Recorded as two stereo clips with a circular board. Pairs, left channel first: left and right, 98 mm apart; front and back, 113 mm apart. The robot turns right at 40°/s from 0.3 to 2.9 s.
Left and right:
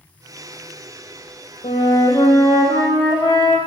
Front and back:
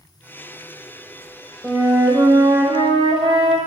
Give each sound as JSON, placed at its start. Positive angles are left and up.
{"t": 1.6, "sound": "a flute", "azimuth_deg": 100, "distance_m": 4.5}